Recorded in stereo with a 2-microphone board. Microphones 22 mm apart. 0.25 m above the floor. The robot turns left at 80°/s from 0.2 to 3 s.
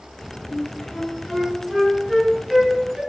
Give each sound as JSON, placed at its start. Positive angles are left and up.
{"t": 0.5, "sound": "a flute", "side_deg": 55, "distance_m": 1.3}